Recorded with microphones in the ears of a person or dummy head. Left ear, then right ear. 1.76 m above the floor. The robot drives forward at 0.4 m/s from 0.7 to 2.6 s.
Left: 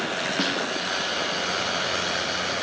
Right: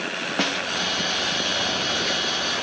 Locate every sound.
0.4 s a snare drum: 30° right (ahead or behind)